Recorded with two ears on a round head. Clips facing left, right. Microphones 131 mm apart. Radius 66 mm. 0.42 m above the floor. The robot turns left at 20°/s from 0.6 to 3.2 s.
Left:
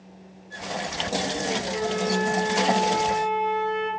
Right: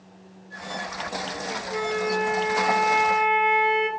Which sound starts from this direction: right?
A flute, at 1.7 s.